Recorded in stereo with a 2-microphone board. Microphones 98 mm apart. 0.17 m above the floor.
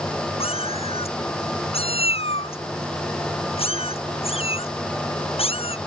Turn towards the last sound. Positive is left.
turn(degrees=80)